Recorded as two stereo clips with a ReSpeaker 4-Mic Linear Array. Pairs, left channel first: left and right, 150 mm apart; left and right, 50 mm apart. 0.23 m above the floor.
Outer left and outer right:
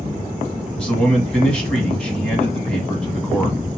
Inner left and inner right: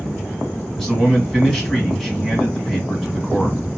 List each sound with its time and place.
0.8 s a man speaking: 5° left (ahead or behind), 1.8 m